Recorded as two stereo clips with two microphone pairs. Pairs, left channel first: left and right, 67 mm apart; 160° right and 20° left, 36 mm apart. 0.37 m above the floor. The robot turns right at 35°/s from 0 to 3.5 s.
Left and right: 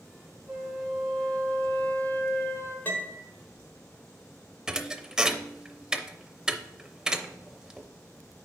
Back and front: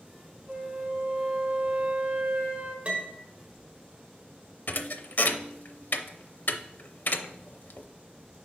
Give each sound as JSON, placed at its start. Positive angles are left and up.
{"t": 0.5, "sound": "a flute", "azimuth_deg": -15, "distance_m": 1.9}
{"t": 2.9, "sound": "a piano", "azimuth_deg": 45, "distance_m": 1.3}
{"t": 4.7, "sound": "a thud", "azimuth_deg": -165, "distance_m": 0.5}